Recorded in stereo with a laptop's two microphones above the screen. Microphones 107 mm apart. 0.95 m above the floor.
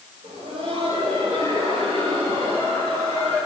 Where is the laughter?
70° right (ahead or behind), 4 m; by 3.4 s 85° right, 7.5 m.